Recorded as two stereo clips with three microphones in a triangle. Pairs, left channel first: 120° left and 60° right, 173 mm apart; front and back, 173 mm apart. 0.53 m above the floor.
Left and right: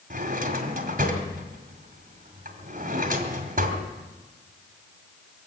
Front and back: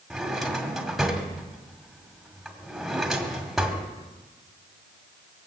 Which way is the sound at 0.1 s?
90° right.